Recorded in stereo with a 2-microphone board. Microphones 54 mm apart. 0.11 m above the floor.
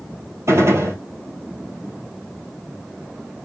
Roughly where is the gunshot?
Right.